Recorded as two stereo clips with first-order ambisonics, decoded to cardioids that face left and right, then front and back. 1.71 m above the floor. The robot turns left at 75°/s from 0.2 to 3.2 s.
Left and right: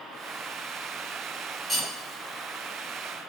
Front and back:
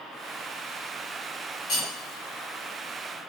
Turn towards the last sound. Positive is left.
turn(degrees=-130)